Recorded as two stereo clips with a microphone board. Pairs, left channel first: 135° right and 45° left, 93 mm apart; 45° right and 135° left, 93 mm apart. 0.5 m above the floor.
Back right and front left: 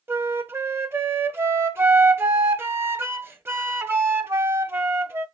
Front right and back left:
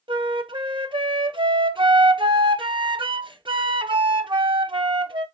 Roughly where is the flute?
Left.